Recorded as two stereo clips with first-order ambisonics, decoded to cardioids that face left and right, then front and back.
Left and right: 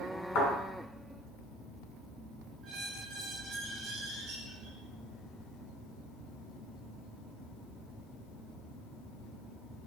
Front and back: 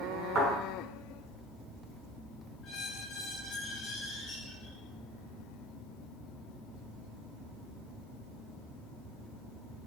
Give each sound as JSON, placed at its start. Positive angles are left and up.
{"t": 0.3, "sound": "a thud", "azimuth_deg": 95, "distance_m": 2.5}
{"t": 2.6, "sound": "a squeak", "azimuth_deg": -50, "distance_m": 2.0}